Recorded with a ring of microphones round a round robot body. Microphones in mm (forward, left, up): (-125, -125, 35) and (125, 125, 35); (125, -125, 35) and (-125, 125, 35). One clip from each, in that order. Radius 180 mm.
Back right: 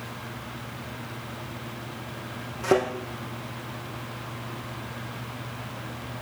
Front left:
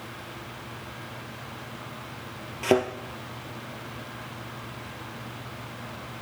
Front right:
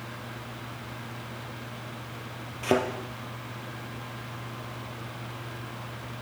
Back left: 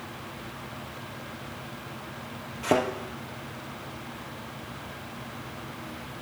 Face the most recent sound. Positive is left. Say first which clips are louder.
# even, back left 1 dB
turn(degrees=30)